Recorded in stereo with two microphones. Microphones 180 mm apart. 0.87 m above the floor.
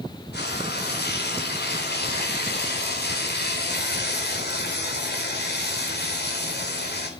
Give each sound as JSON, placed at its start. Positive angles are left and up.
{"t": 0.3, "sound": "frying", "side_deg": 65, "distance_m": 3.5}